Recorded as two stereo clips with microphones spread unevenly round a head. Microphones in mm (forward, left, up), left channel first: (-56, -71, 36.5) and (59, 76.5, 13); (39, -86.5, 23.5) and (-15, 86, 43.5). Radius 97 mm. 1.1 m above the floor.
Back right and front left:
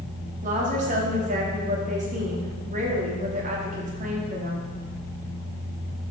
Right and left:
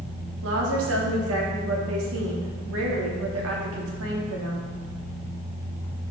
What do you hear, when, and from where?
0.4 s a woman speaking: 105° left, 2 m